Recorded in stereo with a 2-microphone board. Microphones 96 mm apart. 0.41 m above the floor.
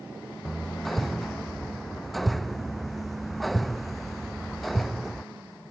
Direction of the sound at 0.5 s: Centre (ahead or behind).